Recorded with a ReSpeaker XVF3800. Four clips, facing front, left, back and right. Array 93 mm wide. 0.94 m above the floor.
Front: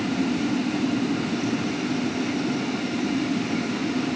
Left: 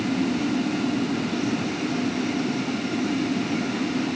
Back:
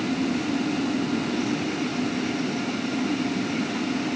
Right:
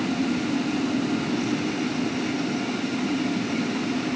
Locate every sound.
Only background noise.